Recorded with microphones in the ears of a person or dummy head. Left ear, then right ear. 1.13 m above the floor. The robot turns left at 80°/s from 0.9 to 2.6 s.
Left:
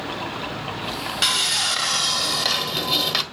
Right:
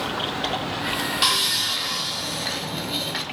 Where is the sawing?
175° left, 1.5 m; by 3.2 s 65° left, 1.5 m.